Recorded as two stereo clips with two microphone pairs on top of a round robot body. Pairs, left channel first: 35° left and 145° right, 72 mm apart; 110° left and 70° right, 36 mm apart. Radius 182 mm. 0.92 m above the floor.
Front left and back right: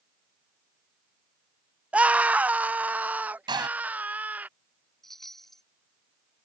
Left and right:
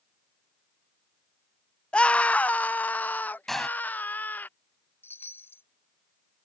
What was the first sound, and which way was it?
A scream, 145° left.